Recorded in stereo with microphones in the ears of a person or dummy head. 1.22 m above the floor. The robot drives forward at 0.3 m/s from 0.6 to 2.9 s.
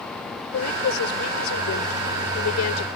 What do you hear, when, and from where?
0.5 s a woman speaking: 90° left; by 2.9 s 80° left